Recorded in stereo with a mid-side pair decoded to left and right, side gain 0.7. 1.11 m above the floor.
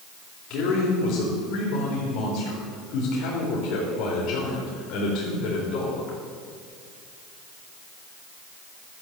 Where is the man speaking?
55° left, 4 m.